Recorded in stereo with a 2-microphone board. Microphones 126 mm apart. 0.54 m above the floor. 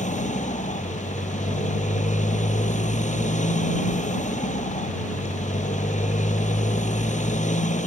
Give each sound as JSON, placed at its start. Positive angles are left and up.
{"t": 0.0, "sound": "a motorcycle", "side_deg": 85}